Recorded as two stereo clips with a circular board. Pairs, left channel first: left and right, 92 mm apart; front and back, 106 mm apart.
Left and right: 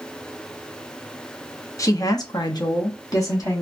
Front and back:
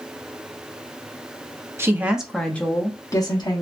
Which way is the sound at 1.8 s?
125° left.